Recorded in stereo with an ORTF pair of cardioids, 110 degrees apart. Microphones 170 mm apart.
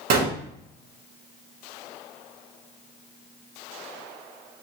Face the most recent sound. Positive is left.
turn(degrees=-70)